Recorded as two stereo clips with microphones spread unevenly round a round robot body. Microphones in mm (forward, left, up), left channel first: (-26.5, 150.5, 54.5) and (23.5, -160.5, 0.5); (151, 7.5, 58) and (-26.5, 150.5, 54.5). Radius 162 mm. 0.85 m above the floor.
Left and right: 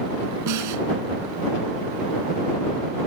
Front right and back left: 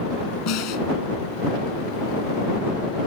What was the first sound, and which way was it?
A snare drum, 45° right.